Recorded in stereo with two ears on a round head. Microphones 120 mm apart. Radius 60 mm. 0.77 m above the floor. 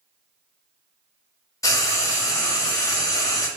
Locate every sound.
1.6 s frying: 25° left (ahead or behind), 1.0 m